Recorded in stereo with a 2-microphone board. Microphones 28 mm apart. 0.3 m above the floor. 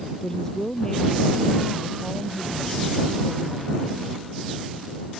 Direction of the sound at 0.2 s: 20° left (ahead or behind).